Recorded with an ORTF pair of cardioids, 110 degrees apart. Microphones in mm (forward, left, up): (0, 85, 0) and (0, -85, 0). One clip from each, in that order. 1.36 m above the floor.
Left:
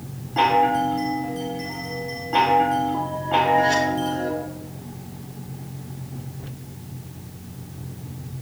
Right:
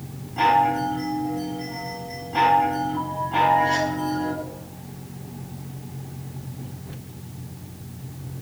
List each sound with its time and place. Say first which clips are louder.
0.4 s a chime: left 1 dB; 60° left, 4 m